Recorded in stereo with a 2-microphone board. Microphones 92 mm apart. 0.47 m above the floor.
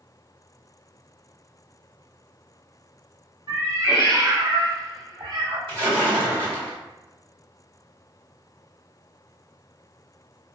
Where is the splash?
65° right (ahead or behind), 1.7 m.